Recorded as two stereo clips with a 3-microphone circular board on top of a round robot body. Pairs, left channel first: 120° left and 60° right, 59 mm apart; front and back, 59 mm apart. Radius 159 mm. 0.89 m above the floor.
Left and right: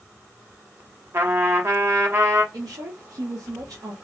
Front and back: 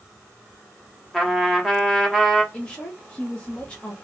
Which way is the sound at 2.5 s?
70° right.